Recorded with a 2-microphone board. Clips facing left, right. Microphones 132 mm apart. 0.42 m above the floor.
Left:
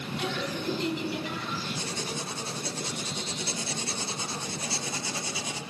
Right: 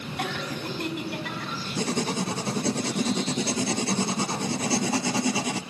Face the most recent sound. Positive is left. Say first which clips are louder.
# right 8 dB
turn(degrees=-75)  # may be behind; listen again after turning